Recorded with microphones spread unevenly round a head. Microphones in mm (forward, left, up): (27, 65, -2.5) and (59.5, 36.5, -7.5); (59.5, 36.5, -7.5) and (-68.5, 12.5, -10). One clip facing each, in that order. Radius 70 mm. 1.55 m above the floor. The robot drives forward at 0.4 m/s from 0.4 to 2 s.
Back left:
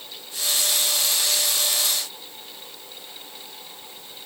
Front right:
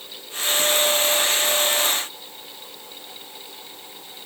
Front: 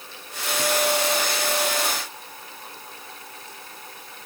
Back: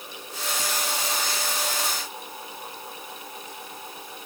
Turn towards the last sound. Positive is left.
No sound to turn to.